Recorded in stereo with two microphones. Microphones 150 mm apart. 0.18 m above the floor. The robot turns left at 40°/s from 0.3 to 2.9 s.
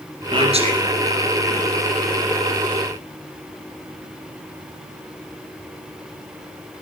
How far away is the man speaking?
About 2.5 m.